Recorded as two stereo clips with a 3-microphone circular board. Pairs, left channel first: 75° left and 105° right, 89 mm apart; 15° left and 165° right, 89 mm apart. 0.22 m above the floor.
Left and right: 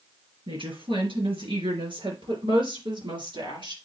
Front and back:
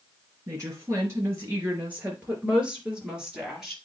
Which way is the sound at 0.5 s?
110° right.